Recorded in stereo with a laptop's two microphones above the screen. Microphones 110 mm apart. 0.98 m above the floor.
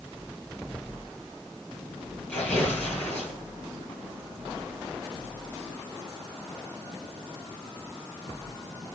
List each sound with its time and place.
2.3 s tearing paper: 10° left (ahead or behind), 8.5 m